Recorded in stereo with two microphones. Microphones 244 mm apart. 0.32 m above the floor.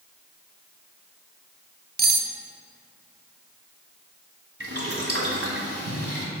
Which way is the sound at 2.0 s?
40° right (ahead or behind).